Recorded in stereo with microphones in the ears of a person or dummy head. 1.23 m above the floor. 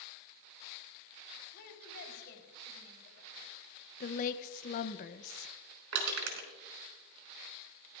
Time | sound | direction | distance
1.5 | a woman speaking | 50° left (ahead or behind) | 4 m
4.0 | a woman speaking | 40° left (ahead or behind) | 0.8 m
5.9 | crushing | 75° right (ahead or behind) | 5 m